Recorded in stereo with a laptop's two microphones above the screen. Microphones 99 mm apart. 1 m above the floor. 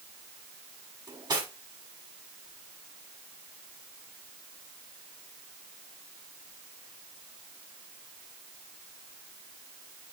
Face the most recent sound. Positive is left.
turn(degrees=-45)  # may be behind; listen again after turning